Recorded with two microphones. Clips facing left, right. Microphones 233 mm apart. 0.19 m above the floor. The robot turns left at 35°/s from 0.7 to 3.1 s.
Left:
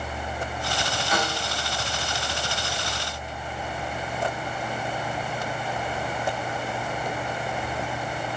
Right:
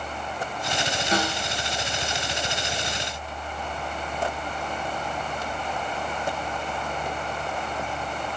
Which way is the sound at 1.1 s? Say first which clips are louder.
Right 2 dB; 30° right (ahead or behind).